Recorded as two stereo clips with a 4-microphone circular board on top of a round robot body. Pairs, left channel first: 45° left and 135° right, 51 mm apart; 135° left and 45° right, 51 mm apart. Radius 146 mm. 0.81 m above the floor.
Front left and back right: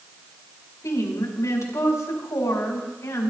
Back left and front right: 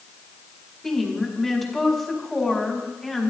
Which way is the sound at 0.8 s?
45° left.